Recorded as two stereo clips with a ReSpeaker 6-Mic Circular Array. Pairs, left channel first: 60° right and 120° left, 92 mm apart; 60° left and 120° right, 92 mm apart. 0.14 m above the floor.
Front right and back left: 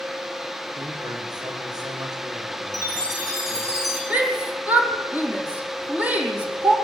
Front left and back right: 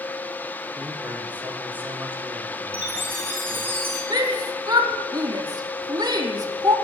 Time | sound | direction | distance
0.8 | a man speaking | 165° left | 9 m
2.7 | a chime | 170° left | 7.5 m
4.1 | a shout | 165° right | 5.5 m